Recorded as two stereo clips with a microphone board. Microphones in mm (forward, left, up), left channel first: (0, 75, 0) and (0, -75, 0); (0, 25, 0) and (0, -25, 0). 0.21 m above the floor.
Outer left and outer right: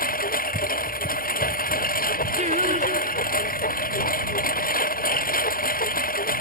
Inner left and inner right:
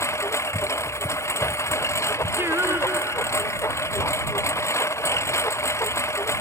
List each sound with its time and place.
0.0 s a lawn mower: 70° left (ahead or behind)
2.4 s singing: 55° right (ahead or behind)